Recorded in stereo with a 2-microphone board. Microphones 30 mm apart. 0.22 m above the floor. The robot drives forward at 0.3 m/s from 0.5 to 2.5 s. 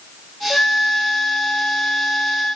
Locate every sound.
0.5 s a flute: 30° left (ahead or behind), 0.9 m